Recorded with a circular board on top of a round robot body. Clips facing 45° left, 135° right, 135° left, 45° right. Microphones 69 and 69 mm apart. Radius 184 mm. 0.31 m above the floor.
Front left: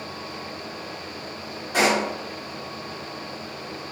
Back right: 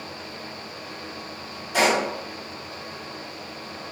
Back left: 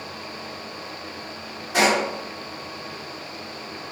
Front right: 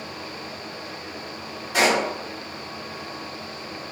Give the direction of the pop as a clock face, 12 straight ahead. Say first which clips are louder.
Even, back left 1 dB; 9 o'clock.